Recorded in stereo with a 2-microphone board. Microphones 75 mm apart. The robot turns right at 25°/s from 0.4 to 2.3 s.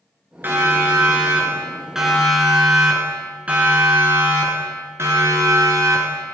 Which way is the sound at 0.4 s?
30° right (ahead or behind).